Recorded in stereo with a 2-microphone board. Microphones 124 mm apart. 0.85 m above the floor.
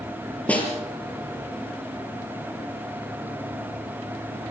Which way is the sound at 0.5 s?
10° left (ahead or behind).